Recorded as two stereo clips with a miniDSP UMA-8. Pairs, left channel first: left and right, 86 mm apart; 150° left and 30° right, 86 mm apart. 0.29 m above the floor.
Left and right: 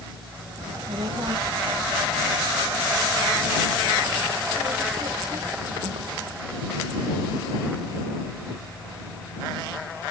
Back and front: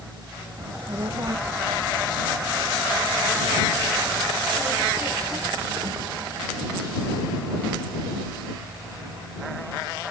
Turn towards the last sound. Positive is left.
turn(degrees=-75)